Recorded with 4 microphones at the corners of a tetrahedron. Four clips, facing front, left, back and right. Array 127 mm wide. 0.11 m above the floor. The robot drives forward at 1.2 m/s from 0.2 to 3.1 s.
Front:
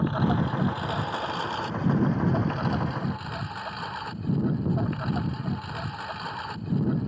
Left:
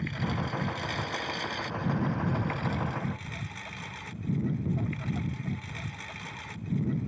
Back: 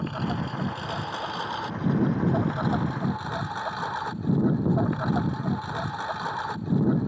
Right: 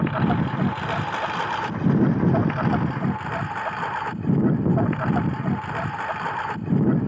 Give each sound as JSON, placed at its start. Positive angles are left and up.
{"t": 0.0, "sound": "a lawn mower", "azimuth_deg": -80}